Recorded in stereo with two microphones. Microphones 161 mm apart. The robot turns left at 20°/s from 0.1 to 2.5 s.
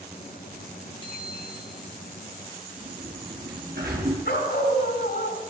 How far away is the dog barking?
About 2.5 m.